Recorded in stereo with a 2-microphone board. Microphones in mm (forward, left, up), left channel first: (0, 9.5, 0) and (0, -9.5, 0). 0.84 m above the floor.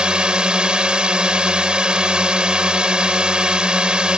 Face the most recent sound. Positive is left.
turn(degrees=-65)  # may be behind; listen again after turning